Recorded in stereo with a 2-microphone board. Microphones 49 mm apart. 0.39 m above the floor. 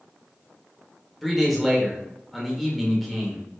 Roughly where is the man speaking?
Centre.